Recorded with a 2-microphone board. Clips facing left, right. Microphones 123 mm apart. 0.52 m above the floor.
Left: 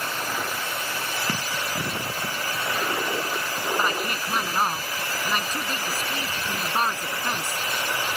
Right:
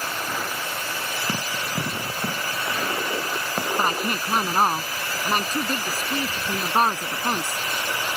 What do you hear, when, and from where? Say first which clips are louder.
1.3 s running footsteps: right 1 dB; 20° right (ahead or behind); by 3.7 s 65° right (ahead or behind)
3.8 s a woman speaking: right 3 dB; 35° right (ahead or behind)